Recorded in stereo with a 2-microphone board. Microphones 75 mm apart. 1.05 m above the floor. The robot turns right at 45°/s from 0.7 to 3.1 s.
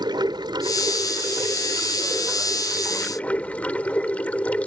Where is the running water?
90° right; by 4.7 s 20° left.